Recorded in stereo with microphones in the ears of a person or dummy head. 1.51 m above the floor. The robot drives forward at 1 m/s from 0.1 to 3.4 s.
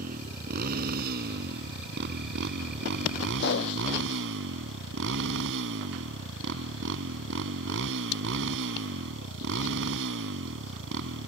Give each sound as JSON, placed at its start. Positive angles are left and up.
{"t": 0.0, "sound": "a motorcycle", "side_deg": -45}
{"t": 3.4, "sound": "a pop", "side_deg": 60}